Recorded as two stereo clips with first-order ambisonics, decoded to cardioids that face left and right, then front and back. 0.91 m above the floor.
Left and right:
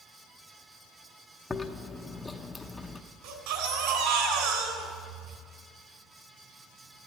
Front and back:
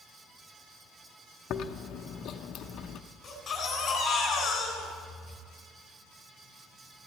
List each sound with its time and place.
1.5 s chewing: 15° left, 0.7 m
3.2 s a baby crying: 75° right, 3 m